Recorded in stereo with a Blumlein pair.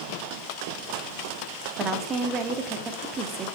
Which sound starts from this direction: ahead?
A woman speaking, at 1.8 s.